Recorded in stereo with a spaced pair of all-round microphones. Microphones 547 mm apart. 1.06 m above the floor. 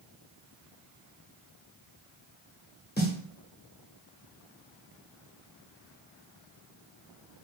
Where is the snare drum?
20° left (ahead or behind), 0.7 m.